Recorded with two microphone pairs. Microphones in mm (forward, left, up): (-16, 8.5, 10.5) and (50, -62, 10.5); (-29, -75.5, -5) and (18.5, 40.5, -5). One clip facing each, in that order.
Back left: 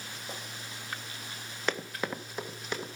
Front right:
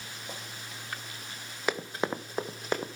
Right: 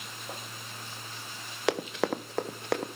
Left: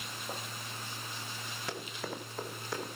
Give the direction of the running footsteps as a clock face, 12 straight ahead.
4 o'clock.